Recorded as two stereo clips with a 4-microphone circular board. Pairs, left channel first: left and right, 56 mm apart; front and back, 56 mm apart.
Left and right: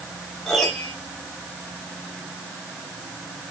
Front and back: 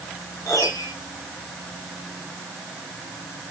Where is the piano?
10° left, 3.5 m.